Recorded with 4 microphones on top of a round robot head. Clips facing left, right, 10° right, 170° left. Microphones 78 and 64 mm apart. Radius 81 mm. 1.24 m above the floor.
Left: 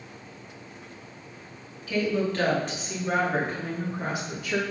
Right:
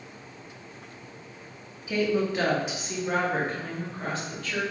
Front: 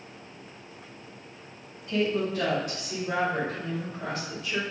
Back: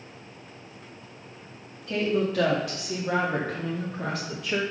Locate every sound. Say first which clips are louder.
1.9 s a woman speaking: right 1 dB, back 1 dB; 160° right, 2.5 m; by 4.6 s 165° left, 2.5 m